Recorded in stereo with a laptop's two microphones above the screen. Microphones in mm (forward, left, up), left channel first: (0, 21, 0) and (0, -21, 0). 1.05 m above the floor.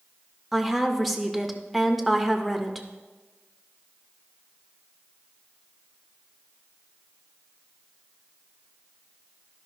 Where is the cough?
No cough in this recording.